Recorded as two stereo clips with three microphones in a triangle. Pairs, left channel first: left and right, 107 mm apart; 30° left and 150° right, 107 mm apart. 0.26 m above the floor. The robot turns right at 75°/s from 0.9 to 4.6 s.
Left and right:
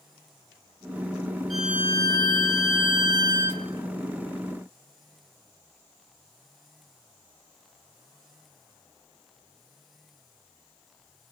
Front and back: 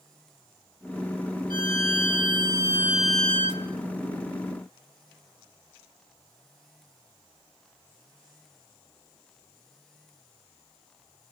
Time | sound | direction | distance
1.5 | a violin | straight behind | 1.9 m